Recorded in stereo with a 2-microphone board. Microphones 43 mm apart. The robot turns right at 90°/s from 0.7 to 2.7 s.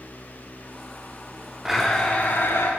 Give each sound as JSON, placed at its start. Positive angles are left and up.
{"t": 1.6, "sound": "a blender", "azimuth_deg": -15, "distance_m": 8.5}